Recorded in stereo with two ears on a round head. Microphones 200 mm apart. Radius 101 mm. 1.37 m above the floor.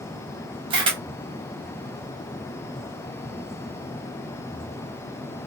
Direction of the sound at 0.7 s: 20° right (ahead or behind).